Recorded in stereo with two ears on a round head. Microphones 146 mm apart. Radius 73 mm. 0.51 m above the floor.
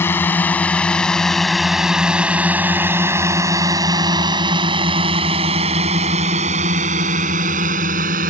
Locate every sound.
0.0 s a drone: 15° left (ahead or behind); by 8.3 s 60° right (ahead or behind)